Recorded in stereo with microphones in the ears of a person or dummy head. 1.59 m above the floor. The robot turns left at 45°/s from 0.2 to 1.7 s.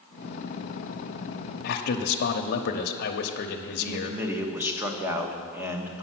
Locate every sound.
1.6 s a man speaking: 60° left (ahead or behind), 0.8 m; by 4.2 s 65° left (ahead or behind), 0.8 m
3.8 s a man speaking: 10° right (ahead or behind), 1.1 m